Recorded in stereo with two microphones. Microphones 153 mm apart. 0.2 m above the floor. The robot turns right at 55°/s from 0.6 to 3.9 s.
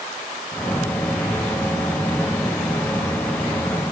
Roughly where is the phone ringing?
I don't hear a phone ringing.